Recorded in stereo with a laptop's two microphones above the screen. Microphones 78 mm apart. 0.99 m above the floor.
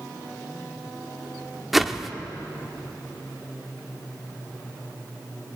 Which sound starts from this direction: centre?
A whoosh, at 1.7 s.